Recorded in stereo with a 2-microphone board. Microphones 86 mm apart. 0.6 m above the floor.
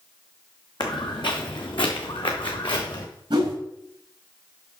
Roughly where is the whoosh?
Right.